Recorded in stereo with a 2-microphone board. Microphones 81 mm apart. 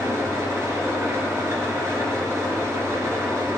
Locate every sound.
0.0 s an engine running: 35° right (ahead or behind), 3 m